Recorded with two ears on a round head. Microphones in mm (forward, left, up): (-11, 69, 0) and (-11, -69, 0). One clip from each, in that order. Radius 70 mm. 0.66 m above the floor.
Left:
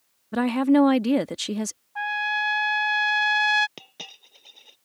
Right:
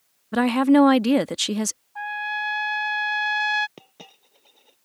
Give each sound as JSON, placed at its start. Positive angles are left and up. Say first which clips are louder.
{"t": 0.3, "sound": "a woman speaking", "louder": "right 3 dB", "side_deg": -15}
{"t": 1.9, "sound": "a trumpet", "louder": "left 3 dB", "side_deg": 30}
{"t": 3.8, "sound": "a dropped coin", "louder": "left 6 dB", "side_deg": 75}